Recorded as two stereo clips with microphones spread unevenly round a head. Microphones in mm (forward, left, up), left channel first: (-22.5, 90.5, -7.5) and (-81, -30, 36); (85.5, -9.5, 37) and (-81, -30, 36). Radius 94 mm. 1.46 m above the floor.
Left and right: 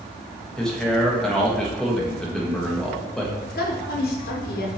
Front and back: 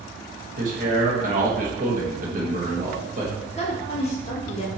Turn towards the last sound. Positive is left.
turn(degrees=65)